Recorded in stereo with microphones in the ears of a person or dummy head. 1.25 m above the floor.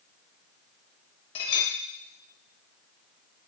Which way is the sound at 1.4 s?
30° left (ahead or behind).